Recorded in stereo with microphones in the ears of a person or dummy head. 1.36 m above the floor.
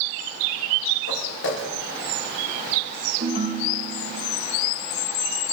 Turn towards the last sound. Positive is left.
turn(degrees=-40)  # may be behind; listen again after turning